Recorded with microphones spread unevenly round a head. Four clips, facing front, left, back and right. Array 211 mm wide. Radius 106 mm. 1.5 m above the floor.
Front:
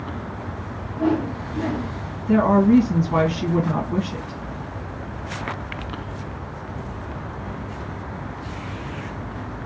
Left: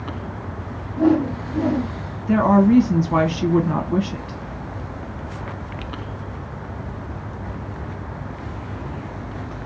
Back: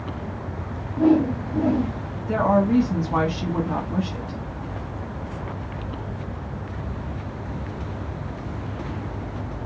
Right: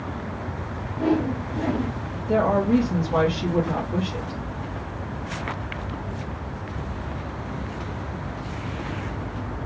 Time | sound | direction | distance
1.0 | a whoosh | 125° left | 1.1 m
2.3 | a woman speaking | 60° left | 0.8 m